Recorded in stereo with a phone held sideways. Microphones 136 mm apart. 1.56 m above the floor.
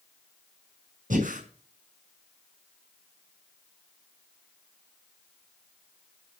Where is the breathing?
80° right, 5.5 m.